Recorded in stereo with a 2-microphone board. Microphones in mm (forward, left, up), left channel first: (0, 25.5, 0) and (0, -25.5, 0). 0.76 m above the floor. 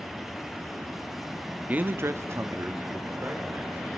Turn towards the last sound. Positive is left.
turn(degrees=-45)  # may be behind; listen again after turning